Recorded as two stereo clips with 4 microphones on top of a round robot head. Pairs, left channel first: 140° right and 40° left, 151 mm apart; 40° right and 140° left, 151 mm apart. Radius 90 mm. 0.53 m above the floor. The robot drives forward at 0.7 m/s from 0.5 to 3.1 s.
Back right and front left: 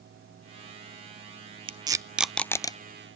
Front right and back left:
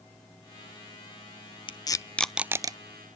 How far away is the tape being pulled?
About 0.7 m.